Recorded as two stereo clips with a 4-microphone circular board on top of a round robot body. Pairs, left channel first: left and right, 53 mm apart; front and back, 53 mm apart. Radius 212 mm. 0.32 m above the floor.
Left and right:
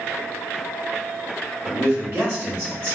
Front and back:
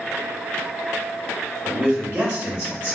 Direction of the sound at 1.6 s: 120° right.